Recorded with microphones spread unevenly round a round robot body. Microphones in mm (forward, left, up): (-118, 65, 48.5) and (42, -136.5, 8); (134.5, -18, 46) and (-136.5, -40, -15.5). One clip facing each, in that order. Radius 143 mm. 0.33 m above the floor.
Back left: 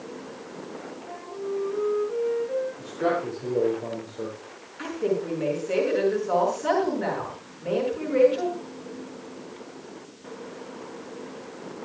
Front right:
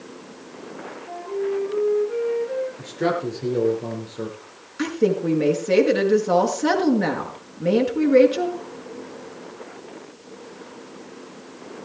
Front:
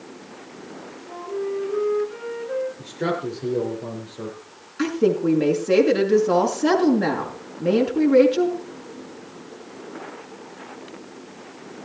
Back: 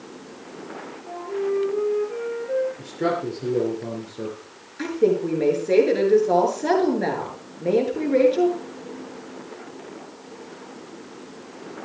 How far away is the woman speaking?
About 5.5 m.